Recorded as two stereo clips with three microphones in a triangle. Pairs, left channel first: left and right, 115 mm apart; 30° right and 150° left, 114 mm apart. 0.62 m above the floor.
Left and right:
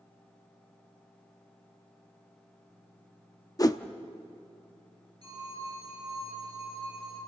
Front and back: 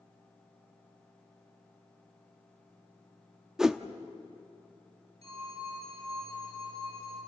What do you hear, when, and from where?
3.6 s a whoosh: 70° left, 0.7 m
5.2 s a phone ringing: 120° left, 7 m